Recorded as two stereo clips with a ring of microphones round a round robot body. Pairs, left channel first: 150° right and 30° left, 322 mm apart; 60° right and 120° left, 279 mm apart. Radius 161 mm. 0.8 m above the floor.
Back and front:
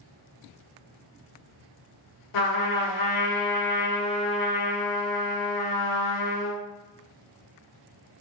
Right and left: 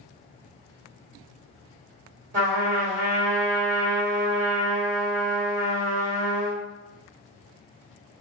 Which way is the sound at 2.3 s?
Straight behind.